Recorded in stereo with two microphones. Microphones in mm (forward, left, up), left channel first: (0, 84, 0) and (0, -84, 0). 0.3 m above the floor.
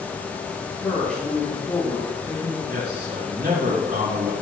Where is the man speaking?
70° right (ahead or behind), 4 m.